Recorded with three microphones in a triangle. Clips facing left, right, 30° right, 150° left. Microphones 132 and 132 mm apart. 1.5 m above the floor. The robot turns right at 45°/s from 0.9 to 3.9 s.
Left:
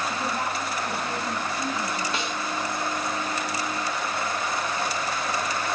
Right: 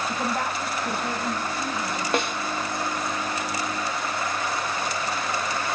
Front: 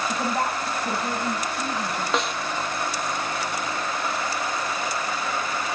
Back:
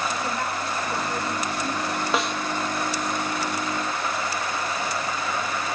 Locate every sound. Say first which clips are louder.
0.1 s a woman speaking: right 1 dB, front 3 dB; 65° right, 10 m; by 2.0 s 15° right, 10 m
2.1 s a snare drum: right 5 dB, even; 125° right, 1.9 m; by 2.4 s 115° right, 1.9 m